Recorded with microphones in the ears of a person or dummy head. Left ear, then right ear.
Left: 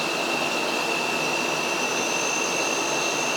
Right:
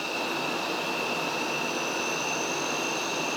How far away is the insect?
About 8.5 m.